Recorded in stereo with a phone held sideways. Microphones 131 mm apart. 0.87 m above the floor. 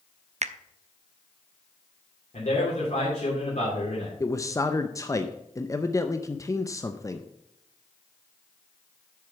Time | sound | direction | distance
0.4 | a finger snap | 60° right (ahead or behind) | 0.5 m
2.3 | a man speaking | 65° left (ahead or behind) | 3 m
4.2 | a man speaking | 25° left (ahead or behind) | 0.5 m